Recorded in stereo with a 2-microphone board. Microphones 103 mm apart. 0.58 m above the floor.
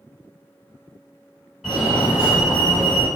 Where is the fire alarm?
5° right (ahead or behind), 1.9 m.